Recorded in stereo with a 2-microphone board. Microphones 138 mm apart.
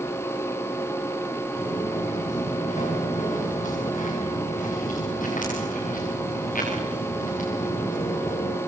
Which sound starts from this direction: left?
Footsteps, at 1.6 s.